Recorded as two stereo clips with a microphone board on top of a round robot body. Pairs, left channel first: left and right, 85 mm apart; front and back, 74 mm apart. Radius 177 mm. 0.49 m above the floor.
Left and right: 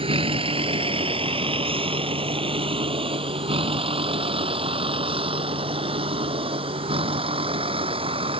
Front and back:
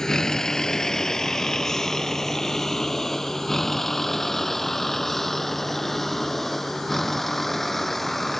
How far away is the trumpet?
I don't hear a trumpet.